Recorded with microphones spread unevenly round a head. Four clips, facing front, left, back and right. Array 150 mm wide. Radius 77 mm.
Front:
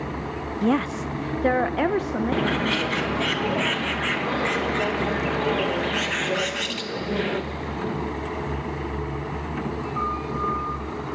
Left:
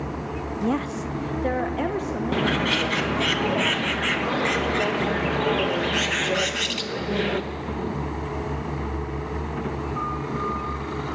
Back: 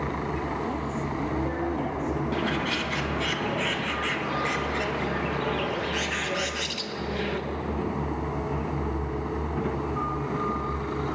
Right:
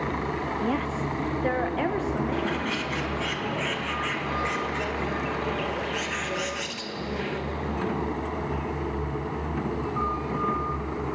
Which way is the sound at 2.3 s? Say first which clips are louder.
Left 4 dB, front 4 dB; 50° left.